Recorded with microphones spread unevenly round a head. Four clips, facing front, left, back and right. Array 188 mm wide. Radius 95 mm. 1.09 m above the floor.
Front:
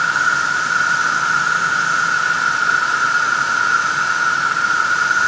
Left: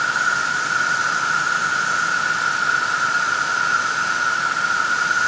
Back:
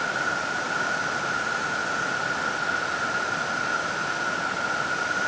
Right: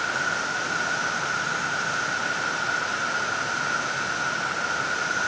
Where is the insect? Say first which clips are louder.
Left 6 dB, front 10 dB; 15° left.